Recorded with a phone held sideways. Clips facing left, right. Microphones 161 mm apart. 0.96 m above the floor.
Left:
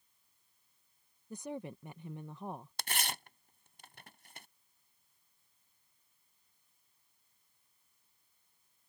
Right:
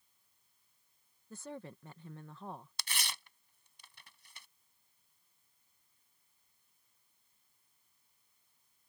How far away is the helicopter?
I don't hear a helicopter.